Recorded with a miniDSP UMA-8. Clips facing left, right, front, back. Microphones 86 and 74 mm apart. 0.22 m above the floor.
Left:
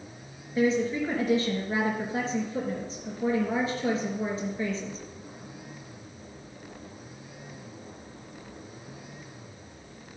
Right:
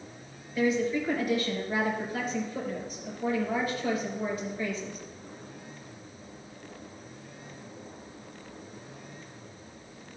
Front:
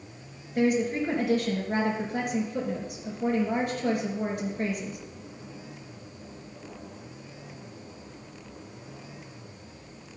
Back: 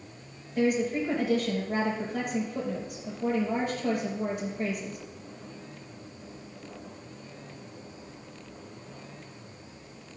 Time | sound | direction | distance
0.6 | a woman speaking | 25° left | 3.5 m